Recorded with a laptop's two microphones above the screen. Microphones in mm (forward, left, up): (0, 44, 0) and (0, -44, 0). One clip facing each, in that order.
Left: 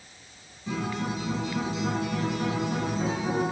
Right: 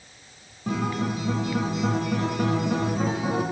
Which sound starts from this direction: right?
A guitar, at 0.7 s.